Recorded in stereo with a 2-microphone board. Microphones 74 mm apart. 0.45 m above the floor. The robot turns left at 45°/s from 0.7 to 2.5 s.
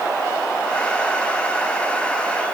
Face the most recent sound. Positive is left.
No sound to turn to.